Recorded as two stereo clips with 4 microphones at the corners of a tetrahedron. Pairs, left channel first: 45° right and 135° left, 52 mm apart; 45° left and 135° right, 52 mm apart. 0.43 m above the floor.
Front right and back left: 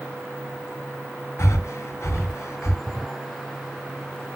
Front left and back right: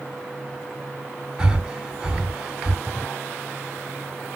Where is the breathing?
65° right, 2.5 m.